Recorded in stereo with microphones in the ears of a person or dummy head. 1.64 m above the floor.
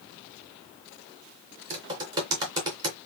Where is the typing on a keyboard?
20° right (ahead or behind), 2.5 m.